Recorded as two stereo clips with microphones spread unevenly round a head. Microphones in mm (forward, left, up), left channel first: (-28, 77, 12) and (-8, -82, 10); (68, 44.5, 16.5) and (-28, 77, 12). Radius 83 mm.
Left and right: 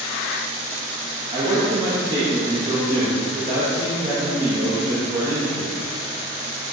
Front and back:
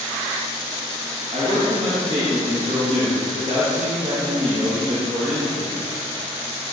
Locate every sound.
1.3 s a man speaking: 145° right, 2 m